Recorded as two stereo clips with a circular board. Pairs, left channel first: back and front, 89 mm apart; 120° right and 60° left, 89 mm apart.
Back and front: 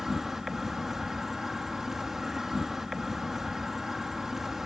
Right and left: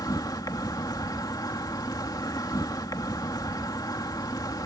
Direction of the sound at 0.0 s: 85° right.